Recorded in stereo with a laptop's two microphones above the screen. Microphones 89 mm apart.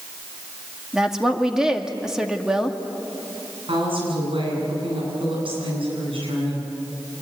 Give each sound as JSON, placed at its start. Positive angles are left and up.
{"t": 0.9, "sound": "a woman speaking", "side_deg": -5, "distance_m": 2.0}
{"t": 3.7, "sound": "a woman speaking", "side_deg": -80, "distance_m": 9.5}